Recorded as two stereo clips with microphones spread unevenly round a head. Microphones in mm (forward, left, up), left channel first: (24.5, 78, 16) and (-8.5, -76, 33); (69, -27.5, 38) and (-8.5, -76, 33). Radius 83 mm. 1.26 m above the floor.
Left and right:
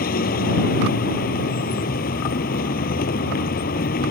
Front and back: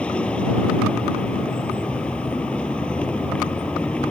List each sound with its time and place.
0.0 s a vehicle: 115° left